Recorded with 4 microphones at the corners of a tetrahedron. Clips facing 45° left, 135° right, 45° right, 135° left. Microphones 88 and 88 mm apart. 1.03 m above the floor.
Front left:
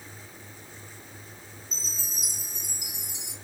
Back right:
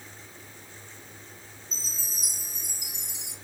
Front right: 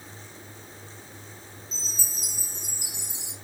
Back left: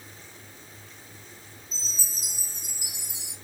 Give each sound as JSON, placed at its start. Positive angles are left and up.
{"t": 1.7, "sound": "a chime", "azimuth_deg": 20, "distance_m": 2.5}